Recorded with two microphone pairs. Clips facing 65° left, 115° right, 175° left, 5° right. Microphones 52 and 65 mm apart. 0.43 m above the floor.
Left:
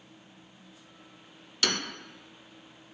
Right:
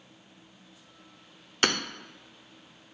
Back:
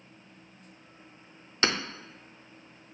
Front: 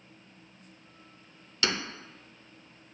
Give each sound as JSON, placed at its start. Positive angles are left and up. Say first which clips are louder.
{"t": 1.6, "sound": "hammering", "louder": "right 4 dB, back 3 dB", "azimuth_deg": -145, "distance_m": 0.5}